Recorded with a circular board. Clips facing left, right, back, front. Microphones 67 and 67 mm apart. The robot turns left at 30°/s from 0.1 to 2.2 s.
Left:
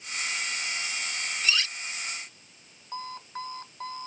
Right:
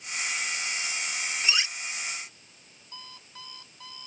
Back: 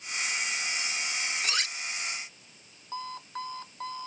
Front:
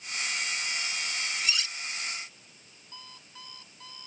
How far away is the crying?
I don't hear crying.